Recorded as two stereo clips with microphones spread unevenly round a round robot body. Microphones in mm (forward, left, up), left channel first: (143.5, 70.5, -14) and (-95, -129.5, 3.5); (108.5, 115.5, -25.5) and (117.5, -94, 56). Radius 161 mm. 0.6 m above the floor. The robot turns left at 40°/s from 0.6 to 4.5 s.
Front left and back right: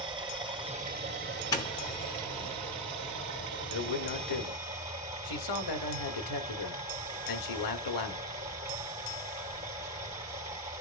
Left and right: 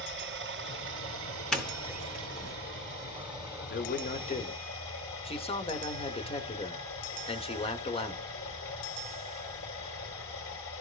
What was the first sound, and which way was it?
Running water, 65° right.